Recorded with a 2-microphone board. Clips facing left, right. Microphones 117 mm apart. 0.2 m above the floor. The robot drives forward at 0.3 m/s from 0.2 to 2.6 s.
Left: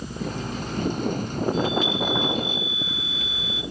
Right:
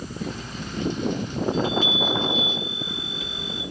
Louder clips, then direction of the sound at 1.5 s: Even; 5° right (ahead or behind).